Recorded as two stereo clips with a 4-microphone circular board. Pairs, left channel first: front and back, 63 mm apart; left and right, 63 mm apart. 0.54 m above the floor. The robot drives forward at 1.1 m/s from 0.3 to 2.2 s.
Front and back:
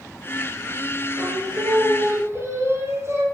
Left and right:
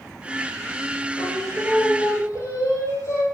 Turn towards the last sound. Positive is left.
turn(degrees=130)